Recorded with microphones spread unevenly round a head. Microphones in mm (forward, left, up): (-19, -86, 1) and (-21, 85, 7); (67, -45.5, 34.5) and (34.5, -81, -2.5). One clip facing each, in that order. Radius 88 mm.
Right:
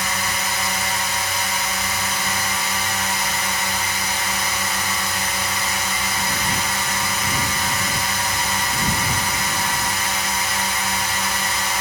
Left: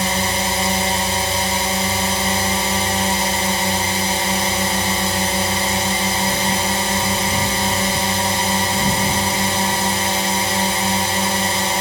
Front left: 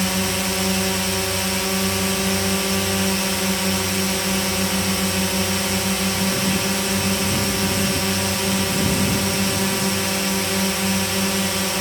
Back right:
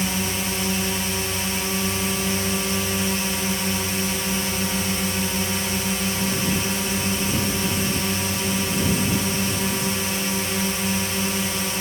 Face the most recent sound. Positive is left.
turn(degrees=100)